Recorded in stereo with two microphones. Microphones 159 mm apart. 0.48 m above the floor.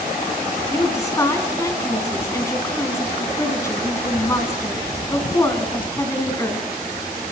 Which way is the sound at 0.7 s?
20° left (ahead or behind).